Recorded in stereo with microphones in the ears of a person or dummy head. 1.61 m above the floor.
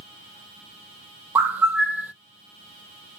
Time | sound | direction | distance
1.4 | a bird | 10° right (ahead or behind) | 0.6 m